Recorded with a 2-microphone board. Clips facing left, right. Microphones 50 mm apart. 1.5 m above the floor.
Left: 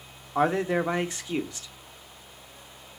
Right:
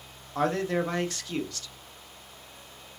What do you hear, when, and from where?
0.3 s a man speaking: 15° left (ahead or behind), 0.7 m